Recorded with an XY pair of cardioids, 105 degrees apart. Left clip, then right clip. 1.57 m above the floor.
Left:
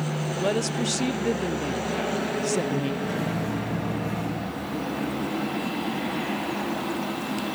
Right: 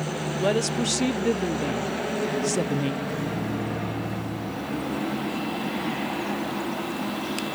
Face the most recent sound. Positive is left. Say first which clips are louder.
# left 1 dB
turn(degrees=40)